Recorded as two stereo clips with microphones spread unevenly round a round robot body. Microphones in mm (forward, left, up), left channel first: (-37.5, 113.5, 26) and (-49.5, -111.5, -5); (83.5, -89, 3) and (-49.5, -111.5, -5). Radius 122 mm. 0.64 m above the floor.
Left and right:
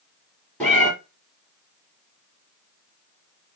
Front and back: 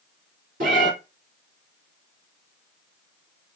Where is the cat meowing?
165° left, 1.4 m.